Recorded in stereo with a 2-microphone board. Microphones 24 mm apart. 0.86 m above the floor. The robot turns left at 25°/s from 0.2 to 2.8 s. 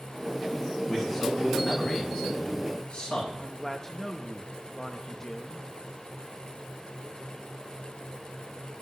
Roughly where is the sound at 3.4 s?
Centre.